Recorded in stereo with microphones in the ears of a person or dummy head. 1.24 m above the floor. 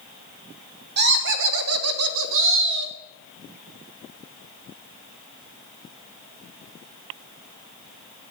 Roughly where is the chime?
I don't hear a chime.